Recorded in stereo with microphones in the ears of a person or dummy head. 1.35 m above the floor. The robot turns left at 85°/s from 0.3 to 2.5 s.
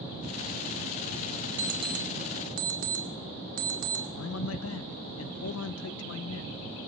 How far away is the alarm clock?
About 1.6 m.